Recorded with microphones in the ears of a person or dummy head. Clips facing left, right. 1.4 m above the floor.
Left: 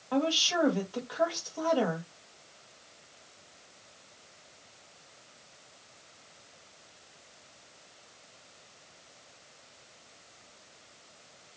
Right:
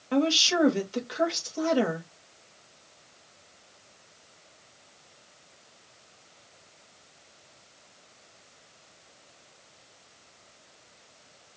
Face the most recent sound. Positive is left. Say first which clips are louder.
# right 4 dB
turn(degrees=-35)  # may be behind; listen again after turning